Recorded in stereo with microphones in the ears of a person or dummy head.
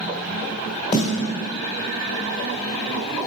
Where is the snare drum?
35° left (ahead or behind), 1.6 m.